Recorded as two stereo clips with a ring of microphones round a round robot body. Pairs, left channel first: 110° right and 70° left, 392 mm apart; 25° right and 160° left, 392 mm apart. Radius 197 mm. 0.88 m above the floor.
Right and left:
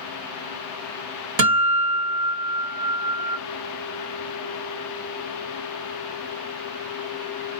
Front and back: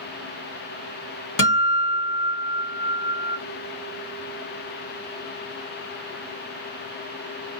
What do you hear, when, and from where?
1.4 s a guitar: 35° left, 1.6 m